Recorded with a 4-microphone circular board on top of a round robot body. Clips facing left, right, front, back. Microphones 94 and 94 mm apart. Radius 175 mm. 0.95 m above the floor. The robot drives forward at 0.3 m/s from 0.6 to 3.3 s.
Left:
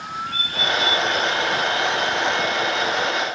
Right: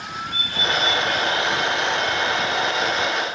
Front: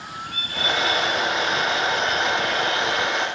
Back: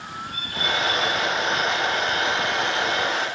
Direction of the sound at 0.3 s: 30° right.